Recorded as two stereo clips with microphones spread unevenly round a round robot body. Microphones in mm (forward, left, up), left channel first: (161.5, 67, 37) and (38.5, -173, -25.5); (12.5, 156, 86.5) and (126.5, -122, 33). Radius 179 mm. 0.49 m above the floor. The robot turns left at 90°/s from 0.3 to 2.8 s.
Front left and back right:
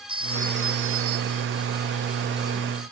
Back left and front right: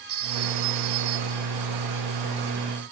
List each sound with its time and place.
0.1 s a phone ringing: 45° right; by 1.6 s 160° right